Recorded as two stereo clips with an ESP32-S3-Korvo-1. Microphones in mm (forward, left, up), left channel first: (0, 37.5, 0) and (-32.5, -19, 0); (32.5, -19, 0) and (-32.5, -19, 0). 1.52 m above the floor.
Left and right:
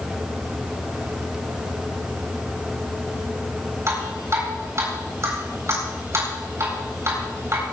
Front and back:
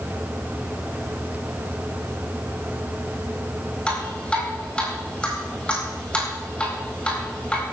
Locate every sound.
3.9 s dripping: 75° right, 8 m